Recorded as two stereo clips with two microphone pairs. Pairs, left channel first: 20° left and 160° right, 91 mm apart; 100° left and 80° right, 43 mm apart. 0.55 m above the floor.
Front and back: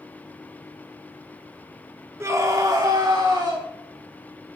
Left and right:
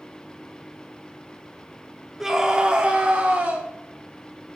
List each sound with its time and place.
2.2 s a scream: 145° right, 0.7 m; by 3.6 s 125° right, 1.3 m